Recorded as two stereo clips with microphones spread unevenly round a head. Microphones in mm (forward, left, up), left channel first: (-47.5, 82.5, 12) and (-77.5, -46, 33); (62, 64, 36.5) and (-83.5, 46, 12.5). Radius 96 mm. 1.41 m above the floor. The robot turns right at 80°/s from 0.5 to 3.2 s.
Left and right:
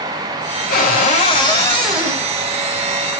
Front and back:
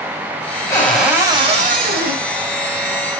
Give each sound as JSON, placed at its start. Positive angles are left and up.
{"t": 0.7, "sound": "a cupboard door", "azimuth_deg": 75, "distance_m": 5.5}